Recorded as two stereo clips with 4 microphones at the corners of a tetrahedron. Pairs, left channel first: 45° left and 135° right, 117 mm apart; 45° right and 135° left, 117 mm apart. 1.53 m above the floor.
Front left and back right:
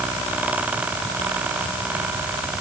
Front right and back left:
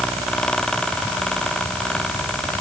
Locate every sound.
Only background noise.